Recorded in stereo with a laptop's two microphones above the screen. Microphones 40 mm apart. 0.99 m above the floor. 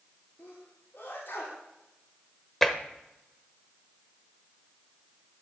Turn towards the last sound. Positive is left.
turn(degrees=5)  # may be behind; listen again after turning